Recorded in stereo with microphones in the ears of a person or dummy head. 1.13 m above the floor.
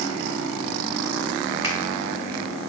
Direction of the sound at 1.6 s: 20° right (ahead or behind).